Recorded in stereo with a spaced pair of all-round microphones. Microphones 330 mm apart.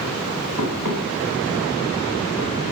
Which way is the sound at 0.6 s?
55° right (ahead or behind).